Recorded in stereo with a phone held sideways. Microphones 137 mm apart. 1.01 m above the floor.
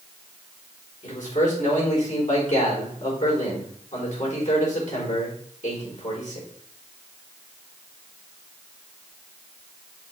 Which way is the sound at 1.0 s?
70° left (ahead or behind).